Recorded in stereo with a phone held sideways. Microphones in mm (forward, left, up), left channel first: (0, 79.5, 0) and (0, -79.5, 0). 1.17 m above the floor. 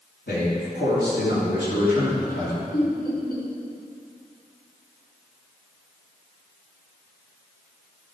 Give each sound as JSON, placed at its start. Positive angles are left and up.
{"t": 0.3, "sound": "a man speaking", "side_deg": 80, "distance_m": 2.5}
{"t": 2.7, "sound": "laughter", "side_deg": 70, "distance_m": 3.0}